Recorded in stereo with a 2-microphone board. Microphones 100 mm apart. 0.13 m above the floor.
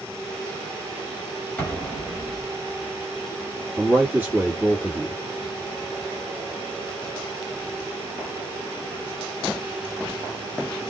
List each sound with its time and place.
1.6 s an explosion: 15° left (ahead or behind), 2.5 m
3.8 s a man speaking: 20° right (ahead or behind), 2 m